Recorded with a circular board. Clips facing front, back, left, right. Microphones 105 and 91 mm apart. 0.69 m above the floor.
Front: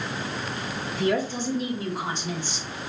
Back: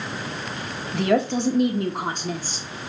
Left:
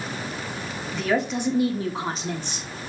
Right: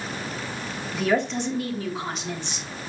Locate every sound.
0.9 s a woman speaking: 175° right, 1.2 m; by 2.7 s 130° left, 1.4 m